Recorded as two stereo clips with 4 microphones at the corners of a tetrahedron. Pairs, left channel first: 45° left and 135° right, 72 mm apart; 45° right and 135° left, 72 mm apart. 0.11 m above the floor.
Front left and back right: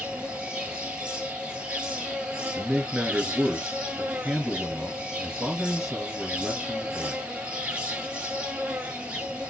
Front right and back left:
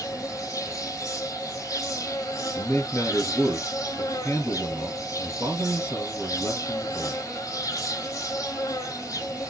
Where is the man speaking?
50° right, 2 m.